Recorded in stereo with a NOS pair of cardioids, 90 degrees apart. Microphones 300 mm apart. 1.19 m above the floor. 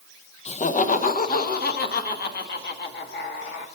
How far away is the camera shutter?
I don't hear a camera shutter.